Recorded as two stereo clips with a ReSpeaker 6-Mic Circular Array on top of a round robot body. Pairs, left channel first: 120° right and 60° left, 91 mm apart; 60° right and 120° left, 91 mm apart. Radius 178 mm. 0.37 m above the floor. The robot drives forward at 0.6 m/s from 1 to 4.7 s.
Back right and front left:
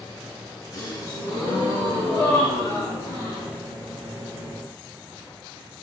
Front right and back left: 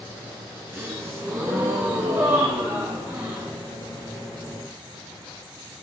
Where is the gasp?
175° right, 1.4 m; by 3.6 s straight behind, 3 m.